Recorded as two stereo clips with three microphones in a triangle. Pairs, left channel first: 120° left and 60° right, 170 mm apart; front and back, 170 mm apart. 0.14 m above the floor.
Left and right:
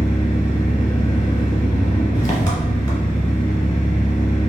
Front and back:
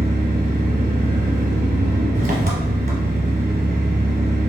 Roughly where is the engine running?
Behind.